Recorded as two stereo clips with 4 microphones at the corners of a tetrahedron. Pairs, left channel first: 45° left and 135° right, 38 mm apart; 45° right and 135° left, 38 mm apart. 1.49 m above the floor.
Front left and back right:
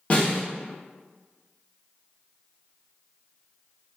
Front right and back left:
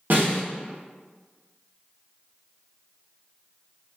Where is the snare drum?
100° left, 1.1 m.